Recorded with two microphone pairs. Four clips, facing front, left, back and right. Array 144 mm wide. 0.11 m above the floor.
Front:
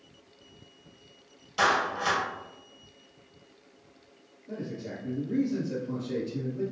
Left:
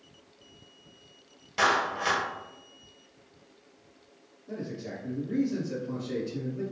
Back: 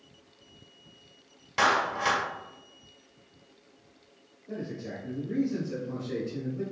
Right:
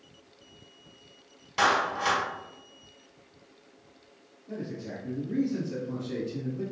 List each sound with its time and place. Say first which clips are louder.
1.6 s a clap: right 1 dB, even; straight behind, 1.5 m
4.5 s a man speaking: even, even; 110° left, 2.0 m